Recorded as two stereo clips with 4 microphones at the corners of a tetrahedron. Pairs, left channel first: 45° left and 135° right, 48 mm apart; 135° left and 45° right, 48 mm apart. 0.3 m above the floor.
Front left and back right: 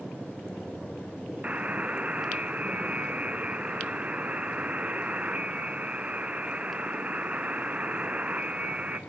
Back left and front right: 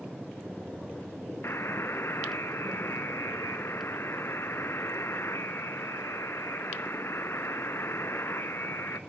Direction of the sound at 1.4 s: 165° left.